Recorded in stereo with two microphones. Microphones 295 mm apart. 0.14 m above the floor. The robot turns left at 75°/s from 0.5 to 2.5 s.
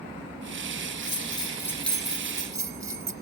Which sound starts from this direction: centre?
A bell, at 1.0 s.